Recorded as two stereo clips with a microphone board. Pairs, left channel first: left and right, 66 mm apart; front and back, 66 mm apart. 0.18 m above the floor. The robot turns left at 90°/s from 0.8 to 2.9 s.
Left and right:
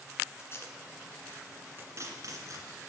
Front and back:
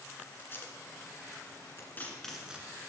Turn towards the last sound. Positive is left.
turn(degrees=-140)